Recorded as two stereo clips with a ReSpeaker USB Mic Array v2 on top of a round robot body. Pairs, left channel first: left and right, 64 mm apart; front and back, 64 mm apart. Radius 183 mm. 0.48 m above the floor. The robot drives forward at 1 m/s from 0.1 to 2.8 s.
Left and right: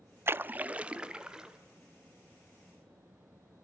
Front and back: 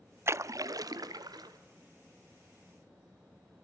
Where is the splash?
135° right, 0.5 m; by 1.6 s 170° right, 1.7 m.